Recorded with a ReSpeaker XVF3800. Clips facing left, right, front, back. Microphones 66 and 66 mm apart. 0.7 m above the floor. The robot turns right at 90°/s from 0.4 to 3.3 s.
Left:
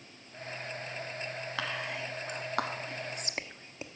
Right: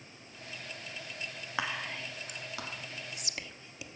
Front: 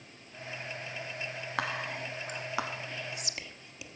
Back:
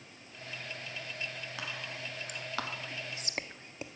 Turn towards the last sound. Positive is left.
turn(degrees=135)